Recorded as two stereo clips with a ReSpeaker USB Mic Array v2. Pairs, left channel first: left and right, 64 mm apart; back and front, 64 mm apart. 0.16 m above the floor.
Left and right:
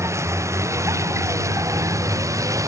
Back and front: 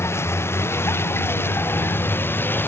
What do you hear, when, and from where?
0.0 s a vehicle: 130° right; by 2.7 s 125° right